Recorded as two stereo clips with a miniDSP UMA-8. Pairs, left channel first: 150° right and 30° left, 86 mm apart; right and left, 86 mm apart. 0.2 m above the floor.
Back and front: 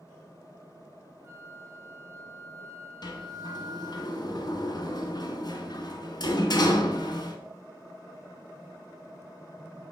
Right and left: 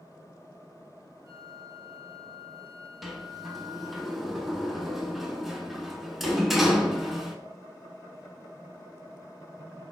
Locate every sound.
1.2 s a flute: 75° left, 0.6 m
3.0 s a sliding door: straight behind, 0.6 m